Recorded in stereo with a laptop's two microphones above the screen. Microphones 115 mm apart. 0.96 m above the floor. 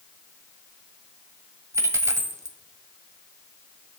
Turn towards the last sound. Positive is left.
turn(degrees=-25)  # may be behind; listen again after turning